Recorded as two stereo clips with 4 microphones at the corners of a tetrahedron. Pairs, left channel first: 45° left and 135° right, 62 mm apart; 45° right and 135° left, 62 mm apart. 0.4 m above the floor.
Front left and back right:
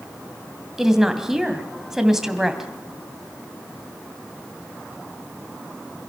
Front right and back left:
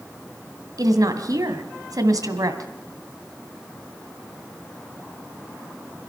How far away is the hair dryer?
No hair dryer in this recording.